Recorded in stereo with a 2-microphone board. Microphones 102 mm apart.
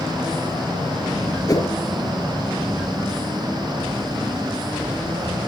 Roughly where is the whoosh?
Left.